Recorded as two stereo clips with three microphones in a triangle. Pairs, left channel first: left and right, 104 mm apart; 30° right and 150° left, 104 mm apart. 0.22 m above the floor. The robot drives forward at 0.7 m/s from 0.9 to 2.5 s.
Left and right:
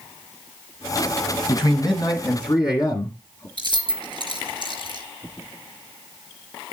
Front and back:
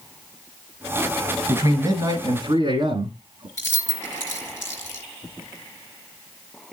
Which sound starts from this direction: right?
Keys jangling, at 3.6 s.